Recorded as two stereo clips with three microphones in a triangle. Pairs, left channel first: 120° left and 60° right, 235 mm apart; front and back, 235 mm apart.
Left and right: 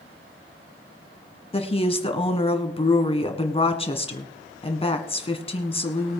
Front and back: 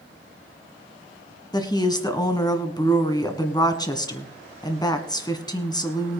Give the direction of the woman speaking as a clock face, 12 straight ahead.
10 o'clock.